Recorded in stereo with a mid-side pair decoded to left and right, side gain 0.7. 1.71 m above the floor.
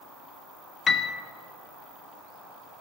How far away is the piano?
About 0.8 m.